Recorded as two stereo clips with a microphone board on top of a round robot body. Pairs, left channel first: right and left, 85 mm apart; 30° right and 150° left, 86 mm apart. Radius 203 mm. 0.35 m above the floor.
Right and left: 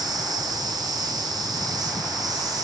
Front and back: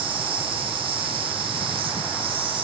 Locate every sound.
0.0 s an insect: 135° left, 0.7 m